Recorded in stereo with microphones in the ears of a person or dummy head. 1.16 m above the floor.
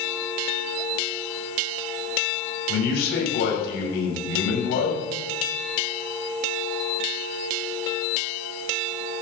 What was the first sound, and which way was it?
A man speaking, 70° left (ahead or behind).